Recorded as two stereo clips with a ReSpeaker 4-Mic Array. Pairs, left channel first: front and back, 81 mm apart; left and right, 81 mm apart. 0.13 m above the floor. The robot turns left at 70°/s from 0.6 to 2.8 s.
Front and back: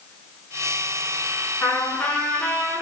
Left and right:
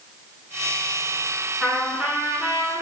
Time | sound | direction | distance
1.6 | a trumpet | 10° left | 1.2 m